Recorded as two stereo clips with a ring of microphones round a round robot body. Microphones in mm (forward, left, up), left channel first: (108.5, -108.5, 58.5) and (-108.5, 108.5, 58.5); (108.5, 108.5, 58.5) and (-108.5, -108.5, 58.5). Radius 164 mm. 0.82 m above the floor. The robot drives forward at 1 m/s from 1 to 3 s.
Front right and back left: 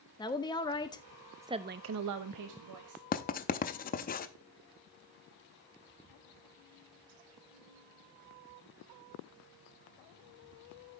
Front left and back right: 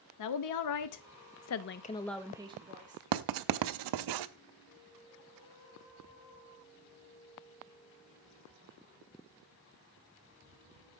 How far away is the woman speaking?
About 0.9 m.